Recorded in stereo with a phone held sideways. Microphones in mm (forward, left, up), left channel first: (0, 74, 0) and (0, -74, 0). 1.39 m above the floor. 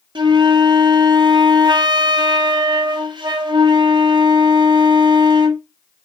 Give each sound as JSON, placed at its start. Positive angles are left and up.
{"t": 0.1, "sound": "a flute", "side_deg": -30, "distance_m": 0.5}